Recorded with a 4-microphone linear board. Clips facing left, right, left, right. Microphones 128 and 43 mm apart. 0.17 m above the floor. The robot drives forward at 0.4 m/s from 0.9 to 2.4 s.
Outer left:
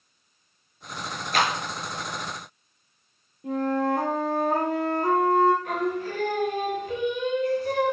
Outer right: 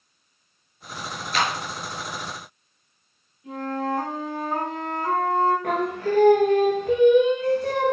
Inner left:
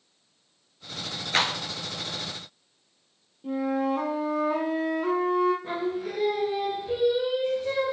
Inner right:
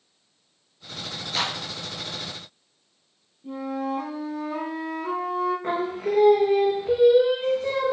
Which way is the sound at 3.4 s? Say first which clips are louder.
Outer left 3 dB, inner left 3 dB; 55° left (ahead or behind).